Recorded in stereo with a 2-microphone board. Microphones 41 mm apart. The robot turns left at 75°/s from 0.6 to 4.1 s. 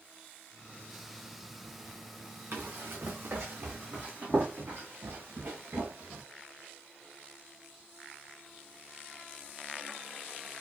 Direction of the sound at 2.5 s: 50° right (ahead or behind).